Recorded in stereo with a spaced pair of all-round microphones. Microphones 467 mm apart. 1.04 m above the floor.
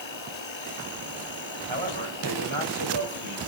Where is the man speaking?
75° right (ahead or behind), 6 m.